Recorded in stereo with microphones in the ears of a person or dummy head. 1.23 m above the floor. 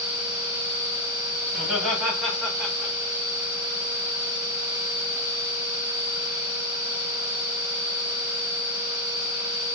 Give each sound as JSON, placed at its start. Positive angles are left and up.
{"t": 1.5, "sound": "laughter", "side_deg": 0, "distance_m": 5.0}